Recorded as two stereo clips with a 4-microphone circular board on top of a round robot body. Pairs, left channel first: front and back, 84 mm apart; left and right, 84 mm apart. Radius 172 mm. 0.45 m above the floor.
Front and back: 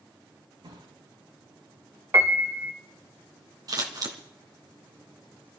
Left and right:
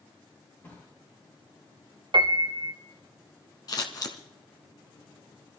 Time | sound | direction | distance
0.6 | a drawer | 155° left | 4.5 m
2.1 | a piano | 120° right | 1.1 m
3.7 | scissors | 135° left | 1.8 m